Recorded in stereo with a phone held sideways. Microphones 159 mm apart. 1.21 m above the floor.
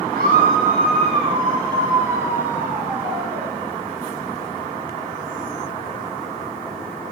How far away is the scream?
About 1.8 m.